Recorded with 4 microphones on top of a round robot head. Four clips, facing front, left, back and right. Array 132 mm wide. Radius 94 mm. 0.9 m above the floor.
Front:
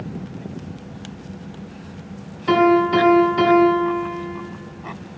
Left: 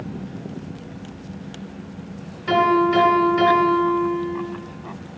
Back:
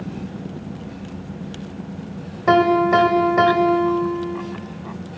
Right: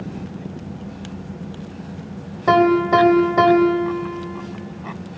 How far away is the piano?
About 2 m.